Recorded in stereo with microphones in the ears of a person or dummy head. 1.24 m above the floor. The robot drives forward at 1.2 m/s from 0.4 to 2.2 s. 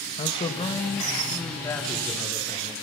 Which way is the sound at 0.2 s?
25° left (ahead or behind).